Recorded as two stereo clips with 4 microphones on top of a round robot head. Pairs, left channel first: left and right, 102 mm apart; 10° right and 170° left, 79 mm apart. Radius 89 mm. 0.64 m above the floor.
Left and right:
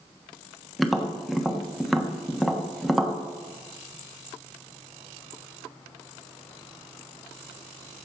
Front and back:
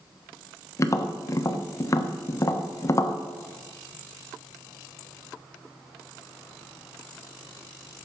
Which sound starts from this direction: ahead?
Tapping, at 0.8 s.